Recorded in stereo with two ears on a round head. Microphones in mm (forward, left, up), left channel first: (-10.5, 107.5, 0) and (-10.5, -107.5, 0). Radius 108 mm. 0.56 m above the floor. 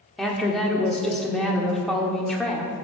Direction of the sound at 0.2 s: Centre (ahead or behind).